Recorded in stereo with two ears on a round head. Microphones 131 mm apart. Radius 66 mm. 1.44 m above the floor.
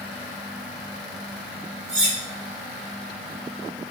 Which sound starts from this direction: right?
Cutlery clinking, at 1.9 s.